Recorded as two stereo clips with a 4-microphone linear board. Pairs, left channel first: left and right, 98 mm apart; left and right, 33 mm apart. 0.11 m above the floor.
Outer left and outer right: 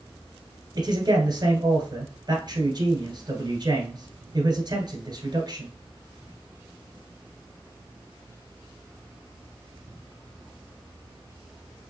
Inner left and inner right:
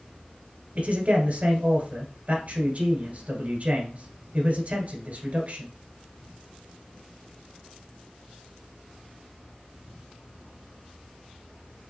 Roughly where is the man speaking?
Right.